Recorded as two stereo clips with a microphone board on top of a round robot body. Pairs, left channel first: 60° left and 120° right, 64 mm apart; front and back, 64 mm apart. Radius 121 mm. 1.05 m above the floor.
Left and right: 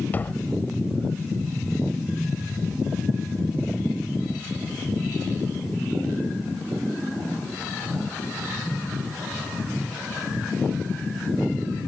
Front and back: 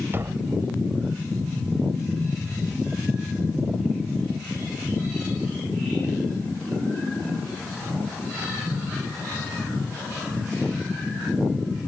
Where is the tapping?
125° left.